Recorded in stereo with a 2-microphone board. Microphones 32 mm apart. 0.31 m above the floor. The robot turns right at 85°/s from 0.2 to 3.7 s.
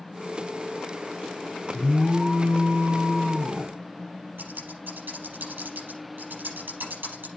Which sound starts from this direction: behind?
An alarm, at 1.7 s.